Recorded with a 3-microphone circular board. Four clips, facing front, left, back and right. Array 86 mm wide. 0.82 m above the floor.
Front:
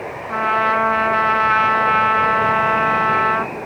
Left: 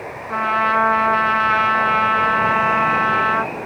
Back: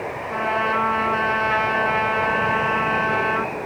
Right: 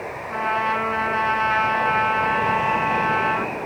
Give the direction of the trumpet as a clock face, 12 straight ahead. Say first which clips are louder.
Left 5 dB, front 5 dB; 11 o'clock.